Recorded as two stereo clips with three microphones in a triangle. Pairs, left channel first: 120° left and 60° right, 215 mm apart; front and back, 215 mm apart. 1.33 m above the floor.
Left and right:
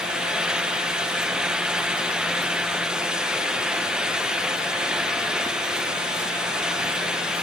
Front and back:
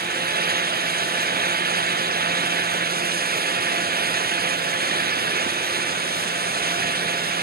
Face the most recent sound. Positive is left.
No sound to turn to.